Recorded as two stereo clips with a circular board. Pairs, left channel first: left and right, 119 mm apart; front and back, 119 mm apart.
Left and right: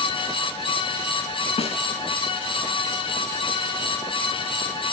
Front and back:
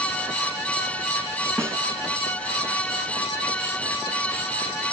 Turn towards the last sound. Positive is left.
turn(degrees=115)